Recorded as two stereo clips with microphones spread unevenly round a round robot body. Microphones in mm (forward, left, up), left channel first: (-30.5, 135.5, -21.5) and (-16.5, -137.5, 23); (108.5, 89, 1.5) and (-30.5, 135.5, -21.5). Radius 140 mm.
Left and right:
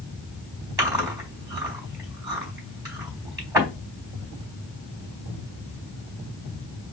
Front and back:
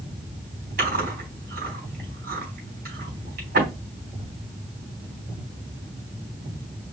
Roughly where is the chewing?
Behind.